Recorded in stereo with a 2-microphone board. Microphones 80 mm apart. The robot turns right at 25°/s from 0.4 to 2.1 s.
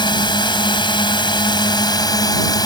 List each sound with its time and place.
0.0 s a drone: 75° left; by 2.7 s 120° left